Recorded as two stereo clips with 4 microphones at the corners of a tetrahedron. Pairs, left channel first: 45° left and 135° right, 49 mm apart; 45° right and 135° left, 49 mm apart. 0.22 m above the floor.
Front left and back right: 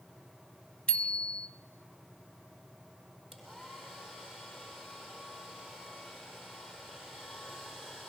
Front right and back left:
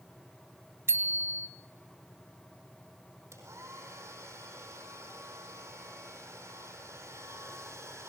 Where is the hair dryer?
145° left, 4.5 m.